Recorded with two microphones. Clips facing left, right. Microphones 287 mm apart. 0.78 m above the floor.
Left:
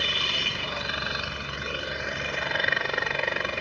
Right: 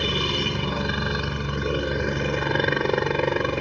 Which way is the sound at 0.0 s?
60° right (ahead or behind).